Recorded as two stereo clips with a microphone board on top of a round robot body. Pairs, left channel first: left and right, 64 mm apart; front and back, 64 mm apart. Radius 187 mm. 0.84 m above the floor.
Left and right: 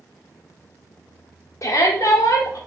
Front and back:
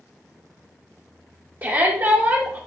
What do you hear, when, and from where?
1.6 s a shout: 135° left, 2 m